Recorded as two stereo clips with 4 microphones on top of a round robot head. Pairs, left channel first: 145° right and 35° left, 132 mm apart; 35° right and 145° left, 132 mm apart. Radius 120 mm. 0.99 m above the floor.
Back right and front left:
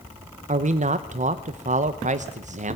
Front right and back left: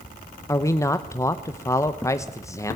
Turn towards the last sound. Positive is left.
turn(degrees=30)